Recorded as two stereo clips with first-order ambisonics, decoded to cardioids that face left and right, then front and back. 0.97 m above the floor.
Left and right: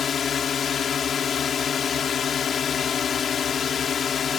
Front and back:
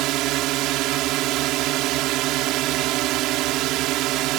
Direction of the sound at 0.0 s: 155° left.